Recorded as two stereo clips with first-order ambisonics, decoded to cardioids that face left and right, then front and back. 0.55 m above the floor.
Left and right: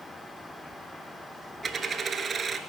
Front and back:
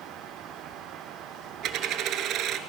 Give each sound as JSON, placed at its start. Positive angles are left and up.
{"t": 1.6, "sound": "a dropped coin", "azimuth_deg": -155, "distance_m": 0.7}